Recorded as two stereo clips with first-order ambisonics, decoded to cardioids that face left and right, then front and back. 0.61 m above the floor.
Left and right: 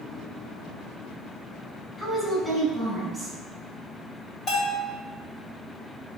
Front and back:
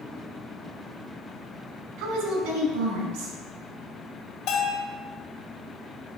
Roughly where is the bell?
Ahead left.